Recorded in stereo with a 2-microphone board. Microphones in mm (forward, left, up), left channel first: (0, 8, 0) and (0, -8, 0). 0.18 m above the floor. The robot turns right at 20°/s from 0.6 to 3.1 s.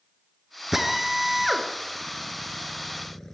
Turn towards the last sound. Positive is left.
turn(degrees=20)  # may be behind; listen again after turning